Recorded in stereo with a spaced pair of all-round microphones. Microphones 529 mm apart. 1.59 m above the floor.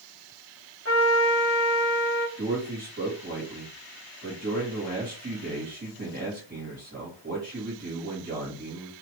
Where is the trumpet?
25° right (ahead or behind), 1.7 m.